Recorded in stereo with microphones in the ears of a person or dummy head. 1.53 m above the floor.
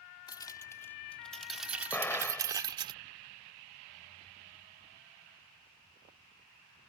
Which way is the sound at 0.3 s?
20° left (ahead or behind).